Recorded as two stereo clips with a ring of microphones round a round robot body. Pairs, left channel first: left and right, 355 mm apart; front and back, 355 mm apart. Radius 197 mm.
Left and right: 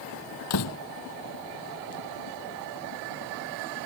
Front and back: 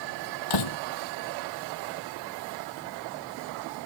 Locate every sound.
0.5 s a door slam: 35° left